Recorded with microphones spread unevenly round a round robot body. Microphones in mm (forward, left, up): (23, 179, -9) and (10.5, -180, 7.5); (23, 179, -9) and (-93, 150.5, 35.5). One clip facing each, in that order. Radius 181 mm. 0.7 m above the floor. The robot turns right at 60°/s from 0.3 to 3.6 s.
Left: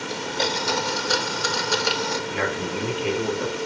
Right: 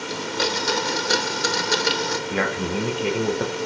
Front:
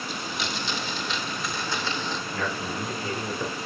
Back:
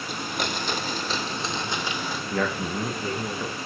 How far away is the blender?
About 1.2 m.